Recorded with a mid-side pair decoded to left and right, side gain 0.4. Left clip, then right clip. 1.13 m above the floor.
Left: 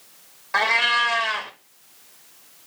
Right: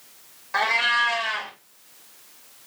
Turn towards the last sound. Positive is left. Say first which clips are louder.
# left 2 dB
turn(degrees=35)